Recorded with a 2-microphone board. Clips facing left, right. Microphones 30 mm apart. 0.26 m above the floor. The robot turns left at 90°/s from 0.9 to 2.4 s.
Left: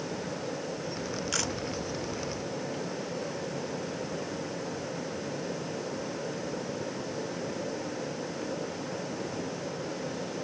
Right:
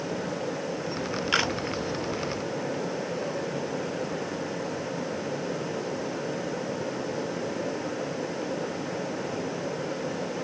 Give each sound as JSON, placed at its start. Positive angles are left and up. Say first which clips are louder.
{"t": 1.3, "sound": "a camera shutter", "louder": "right 10 dB", "side_deg": -45}